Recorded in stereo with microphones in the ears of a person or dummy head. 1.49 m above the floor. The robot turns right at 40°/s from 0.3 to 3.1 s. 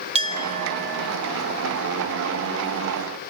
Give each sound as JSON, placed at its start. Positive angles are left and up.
{"t": 0.1, "sound": "a clink", "azimuth_deg": -150, "distance_m": 0.7}